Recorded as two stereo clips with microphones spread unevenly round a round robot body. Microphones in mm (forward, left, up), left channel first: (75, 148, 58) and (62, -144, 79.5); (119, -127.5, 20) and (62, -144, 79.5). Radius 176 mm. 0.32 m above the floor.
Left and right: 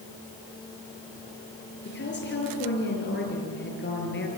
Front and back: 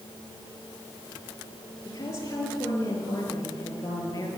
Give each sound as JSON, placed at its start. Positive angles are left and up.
{"t": 1.9, "sound": "a woman speaking", "azimuth_deg": 35, "distance_m": 6.5}